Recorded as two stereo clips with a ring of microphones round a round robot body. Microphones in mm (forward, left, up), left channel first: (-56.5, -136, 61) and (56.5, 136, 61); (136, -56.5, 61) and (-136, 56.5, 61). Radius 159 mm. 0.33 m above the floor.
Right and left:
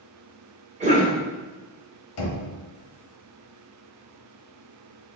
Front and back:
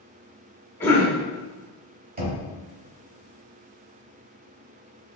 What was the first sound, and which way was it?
A cough, 45° left.